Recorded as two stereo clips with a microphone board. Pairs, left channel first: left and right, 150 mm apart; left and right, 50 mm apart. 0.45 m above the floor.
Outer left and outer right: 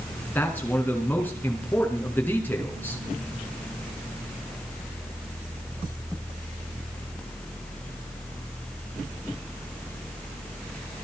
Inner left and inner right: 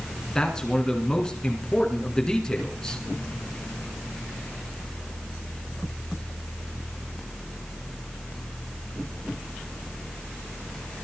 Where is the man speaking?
15° left (ahead or behind), 4.5 m.